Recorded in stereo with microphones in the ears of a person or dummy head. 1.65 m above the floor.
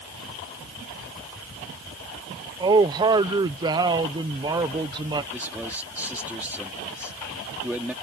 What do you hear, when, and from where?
2.6 s a man speaking: 20° right (ahead or behind)
5.3 s a man speaking: 10° right (ahead or behind)